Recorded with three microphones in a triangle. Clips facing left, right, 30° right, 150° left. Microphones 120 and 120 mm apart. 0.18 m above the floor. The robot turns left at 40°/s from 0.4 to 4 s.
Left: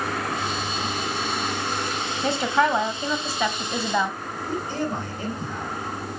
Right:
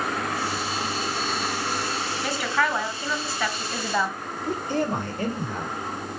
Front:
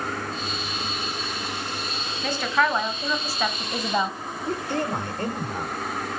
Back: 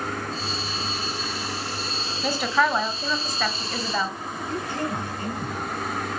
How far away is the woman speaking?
About 1.3 m.